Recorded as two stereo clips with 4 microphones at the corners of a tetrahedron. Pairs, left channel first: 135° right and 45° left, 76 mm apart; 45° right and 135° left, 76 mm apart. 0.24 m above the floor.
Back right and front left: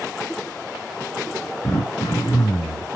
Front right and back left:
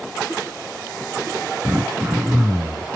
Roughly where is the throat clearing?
Behind right.